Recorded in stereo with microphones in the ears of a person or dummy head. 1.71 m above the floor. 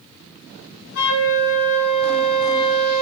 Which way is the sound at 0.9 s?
80° left.